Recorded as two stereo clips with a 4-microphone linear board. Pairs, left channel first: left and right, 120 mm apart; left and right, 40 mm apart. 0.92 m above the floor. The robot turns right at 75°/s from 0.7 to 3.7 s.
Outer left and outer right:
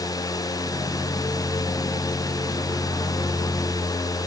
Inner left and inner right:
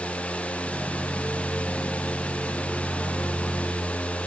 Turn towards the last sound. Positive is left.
No sound to turn to.